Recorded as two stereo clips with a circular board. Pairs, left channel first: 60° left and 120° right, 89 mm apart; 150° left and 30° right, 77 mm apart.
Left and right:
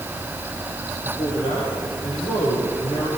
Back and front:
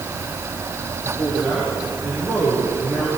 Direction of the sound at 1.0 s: 30° left.